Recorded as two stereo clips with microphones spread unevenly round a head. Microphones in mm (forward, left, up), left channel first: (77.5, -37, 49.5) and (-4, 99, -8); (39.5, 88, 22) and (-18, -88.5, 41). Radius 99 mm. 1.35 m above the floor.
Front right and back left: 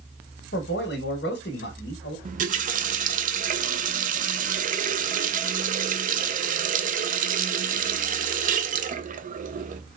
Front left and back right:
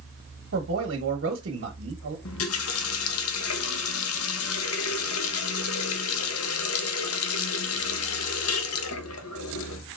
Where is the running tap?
75° left, 0.6 m.